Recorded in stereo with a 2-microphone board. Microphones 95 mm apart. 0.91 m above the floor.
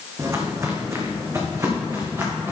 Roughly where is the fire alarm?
I don't hear a fire alarm.